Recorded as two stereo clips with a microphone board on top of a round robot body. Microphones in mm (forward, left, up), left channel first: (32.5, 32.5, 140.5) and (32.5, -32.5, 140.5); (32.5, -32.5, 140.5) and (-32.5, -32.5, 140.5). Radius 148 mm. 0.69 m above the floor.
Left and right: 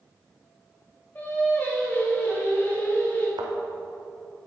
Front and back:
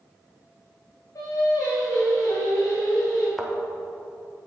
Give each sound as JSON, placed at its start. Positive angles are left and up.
{"t": 1.1, "sound": "singing", "azimuth_deg": 30, "distance_m": 3.0}
{"t": 3.4, "sound": "a thud", "azimuth_deg": -90, "distance_m": 1.1}